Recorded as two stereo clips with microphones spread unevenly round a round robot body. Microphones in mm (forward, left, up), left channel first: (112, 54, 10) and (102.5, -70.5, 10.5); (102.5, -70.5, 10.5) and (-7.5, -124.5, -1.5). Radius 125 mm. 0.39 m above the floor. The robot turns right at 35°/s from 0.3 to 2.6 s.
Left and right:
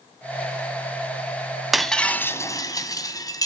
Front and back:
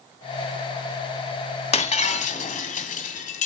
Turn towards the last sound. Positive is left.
turn(degrees=25)